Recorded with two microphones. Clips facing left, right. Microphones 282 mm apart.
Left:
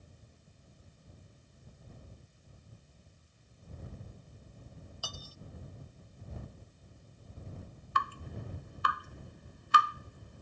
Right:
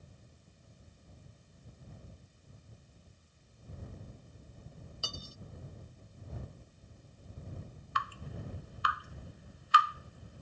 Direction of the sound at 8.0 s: 55° left (ahead or behind).